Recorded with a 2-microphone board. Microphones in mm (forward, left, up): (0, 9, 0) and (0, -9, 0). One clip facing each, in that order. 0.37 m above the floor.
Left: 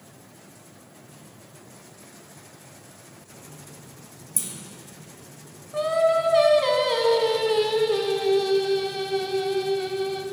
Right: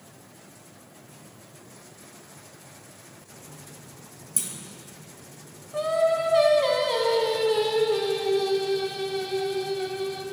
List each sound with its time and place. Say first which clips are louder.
4.4 s a clunk: even; 15° right (ahead or behind), 1.4 m
5.7 s singing: left 2 dB; 10° left (ahead or behind), 0.7 m